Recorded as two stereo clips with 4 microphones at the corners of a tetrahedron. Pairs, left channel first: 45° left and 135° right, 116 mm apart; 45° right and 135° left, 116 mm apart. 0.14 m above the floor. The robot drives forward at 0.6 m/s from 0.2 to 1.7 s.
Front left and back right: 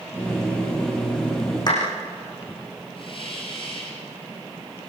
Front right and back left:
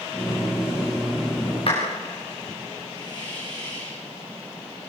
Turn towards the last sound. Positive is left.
turn(degrees=5)